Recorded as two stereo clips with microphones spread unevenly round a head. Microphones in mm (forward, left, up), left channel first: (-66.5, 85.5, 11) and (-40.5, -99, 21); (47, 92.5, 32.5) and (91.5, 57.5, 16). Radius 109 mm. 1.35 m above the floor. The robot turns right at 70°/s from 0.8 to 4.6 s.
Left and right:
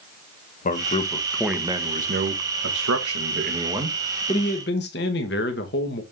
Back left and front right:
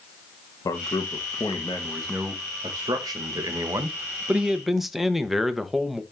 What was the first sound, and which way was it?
A man speaking, 145° left.